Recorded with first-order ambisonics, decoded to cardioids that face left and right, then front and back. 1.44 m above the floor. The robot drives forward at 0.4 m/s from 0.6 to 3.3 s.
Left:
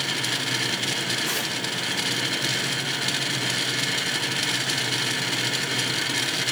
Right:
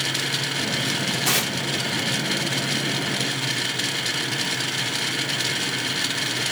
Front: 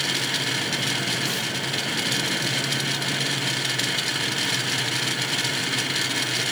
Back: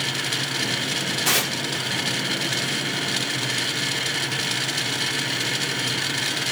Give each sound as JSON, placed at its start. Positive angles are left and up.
{"t": 1.2, "sound": "tearing paper", "azimuth_deg": -140, "distance_m": 1.4}